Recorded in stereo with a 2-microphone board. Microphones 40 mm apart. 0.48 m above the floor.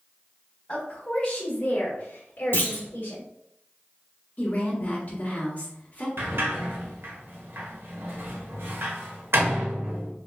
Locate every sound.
0.7 s a woman speaking: 20° left (ahead or behind), 1.8 m; by 3.2 s 45° left (ahead or behind), 1.5 m
2.5 s a clunk: 50° left (ahead or behind), 1.0 m
4.4 s a woman speaking: 40° left (ahead or behind), 1.7 m
6.2 s a sliding door: 65° right (ahead or behind), 1.0 m